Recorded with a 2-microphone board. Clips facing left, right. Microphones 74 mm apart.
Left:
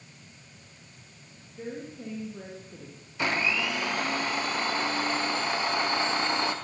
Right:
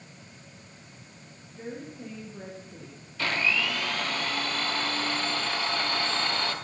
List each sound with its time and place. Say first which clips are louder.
1.6 s a woman speaking: left 1 dB; 10° left (ahead or behind), 3.5 m
3.2 s a blender: even; 20° left (ahead or behind), 1.5 m